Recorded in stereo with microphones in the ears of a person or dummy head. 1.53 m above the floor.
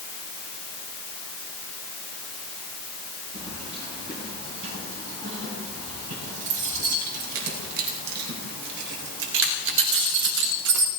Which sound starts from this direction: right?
Keys jangling, at 3.3 s.